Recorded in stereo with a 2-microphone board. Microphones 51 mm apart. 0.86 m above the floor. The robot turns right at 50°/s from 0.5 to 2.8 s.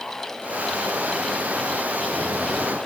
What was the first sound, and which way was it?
Only background noise.